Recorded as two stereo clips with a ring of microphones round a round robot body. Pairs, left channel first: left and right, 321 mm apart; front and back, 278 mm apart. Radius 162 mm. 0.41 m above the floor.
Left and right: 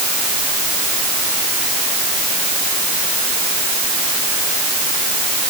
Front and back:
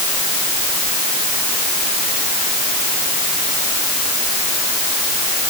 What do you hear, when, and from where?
Only background noise.